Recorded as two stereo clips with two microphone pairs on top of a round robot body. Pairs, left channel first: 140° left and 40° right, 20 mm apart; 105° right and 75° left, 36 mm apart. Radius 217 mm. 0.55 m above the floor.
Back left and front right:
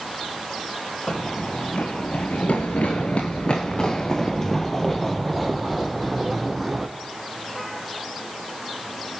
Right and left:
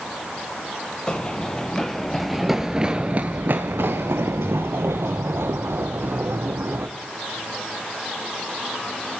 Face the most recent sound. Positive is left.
turn(degrees=50)